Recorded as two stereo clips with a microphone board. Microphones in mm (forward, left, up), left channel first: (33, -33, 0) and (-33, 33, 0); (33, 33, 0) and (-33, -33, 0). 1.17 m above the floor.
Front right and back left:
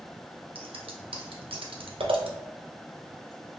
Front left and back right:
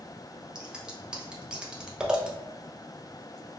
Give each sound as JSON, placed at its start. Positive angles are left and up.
{"t": 0.6, "sound": "scissors", "azimuth_deg": 145, "distance_m": 0.5}